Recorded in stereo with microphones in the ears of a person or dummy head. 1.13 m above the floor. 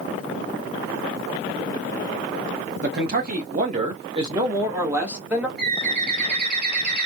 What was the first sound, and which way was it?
A man speaking, 60° right (ahead or behind).